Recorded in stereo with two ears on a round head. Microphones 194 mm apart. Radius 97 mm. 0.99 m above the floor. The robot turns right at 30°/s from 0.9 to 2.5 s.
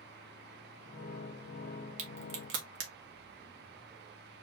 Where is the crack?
75° right (ahead or behind), 1.7 m; by 2.9 s 65° right (ahead or behind), 1.7 m.